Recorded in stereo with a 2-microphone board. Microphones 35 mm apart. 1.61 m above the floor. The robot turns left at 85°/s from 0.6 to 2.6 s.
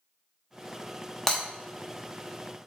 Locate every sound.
1.3 s breaking glass: 10° left (ahead or behind), 0.9 m; by 1.4 s 15° left (ahead or behind), 0.9 m